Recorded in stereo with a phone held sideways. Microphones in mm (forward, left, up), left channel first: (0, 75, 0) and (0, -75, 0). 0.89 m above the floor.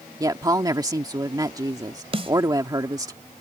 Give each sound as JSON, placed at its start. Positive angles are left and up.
{"t": 0.2, "sound": "a woman speaking", "side_deg": -25}
{"t": 2.1, "sound": "a snare drum", "side_deg": -40}